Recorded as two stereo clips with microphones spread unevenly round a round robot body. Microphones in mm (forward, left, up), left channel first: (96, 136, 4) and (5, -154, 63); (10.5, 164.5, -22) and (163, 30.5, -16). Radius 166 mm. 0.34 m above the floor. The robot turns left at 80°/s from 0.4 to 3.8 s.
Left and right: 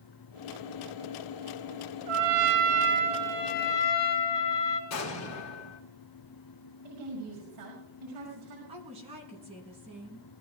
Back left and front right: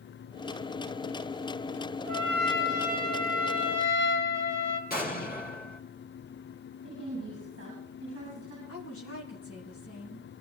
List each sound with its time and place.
2.1 s a trumpet: 105° right, 2.5 m; by 4.8 s 115° left, 2.5 m
4.9 s an explosion: 100° left, 3 m
6.8 s a woman speaking: 105° right, 5.5 m
8.7 s a woman speaking: 175° left, 4 m